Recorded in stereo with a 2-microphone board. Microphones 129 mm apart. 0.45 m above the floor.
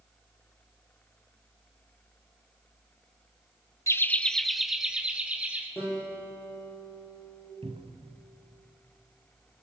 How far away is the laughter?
About 0.7 m.